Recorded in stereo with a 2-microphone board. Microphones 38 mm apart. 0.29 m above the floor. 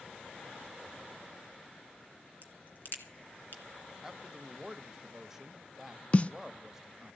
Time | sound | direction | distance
2.4 | a crack | 55° left (ahead or behind) | 2.5 m
4.0 | a man speaking | 15° right (ahead or behind) | 0.9 m
6.1 | a snare drum | 35° left (ahead or behind) | 0.6 m